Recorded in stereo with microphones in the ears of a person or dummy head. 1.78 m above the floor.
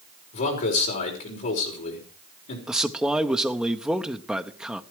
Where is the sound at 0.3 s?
45° left (ahead or behind), 5 m.